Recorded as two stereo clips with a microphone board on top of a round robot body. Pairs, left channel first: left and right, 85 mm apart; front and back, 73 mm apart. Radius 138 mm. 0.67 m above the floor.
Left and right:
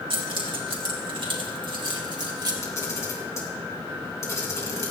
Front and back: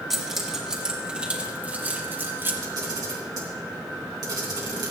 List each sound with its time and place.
0.1 s keys jangling: 90° right, 2.5 m; by 2.5 s 125° right, 2.5 m
2.6 s a camera shutter: 145° left, 3 m